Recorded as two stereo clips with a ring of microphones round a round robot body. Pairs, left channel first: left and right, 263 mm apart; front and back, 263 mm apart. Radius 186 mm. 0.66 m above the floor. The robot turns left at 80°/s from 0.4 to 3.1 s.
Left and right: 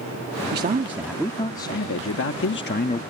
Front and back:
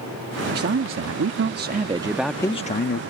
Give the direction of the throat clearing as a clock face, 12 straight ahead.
No throat clearing in this recording.